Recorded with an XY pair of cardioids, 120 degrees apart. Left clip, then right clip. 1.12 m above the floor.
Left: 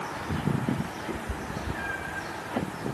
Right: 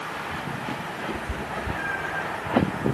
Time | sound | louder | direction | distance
1.1 | a cat meowing | right 4 dB | 5° right | 1.6 m